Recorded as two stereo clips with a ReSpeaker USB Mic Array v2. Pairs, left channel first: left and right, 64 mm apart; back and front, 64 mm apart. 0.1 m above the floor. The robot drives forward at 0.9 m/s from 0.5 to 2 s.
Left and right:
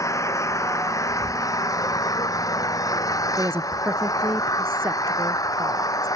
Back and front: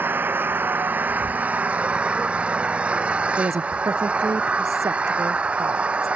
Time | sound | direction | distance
0.0 | an engine running | 55° left | ?
3.4 | a woman speaking | 35° right | ?